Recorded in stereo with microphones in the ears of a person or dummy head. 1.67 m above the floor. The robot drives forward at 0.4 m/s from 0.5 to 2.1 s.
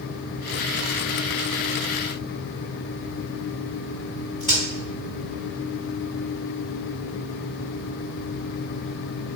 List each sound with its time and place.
4.4 s a crack: 25° left (ahead or behind), 1.7 m